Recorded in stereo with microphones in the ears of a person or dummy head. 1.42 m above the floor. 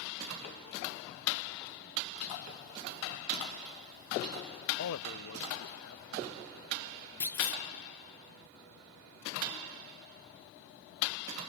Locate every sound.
4.8 s a man speaking: 75° left (ahead or behind), 0.7 m; by 7.1 s 70° left (ahead or behind), 3.5 m
7.2 s a clunk: 10° left (ahead or behind), 1.5 m